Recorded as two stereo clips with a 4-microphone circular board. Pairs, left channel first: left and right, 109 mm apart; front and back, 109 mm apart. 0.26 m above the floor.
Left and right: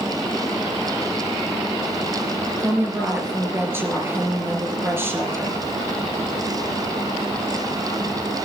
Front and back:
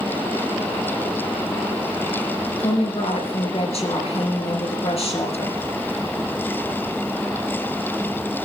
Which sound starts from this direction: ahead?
A woman speaking, at 2.6 s.